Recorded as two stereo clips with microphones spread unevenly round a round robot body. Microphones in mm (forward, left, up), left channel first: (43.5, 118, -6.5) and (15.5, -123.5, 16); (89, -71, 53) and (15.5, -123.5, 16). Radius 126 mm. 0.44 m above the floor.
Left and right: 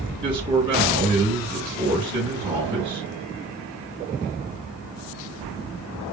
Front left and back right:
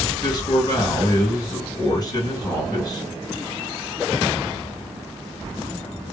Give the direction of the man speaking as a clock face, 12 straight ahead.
1 o'clock.